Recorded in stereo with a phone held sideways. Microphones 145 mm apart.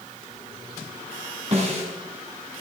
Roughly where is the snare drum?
Right.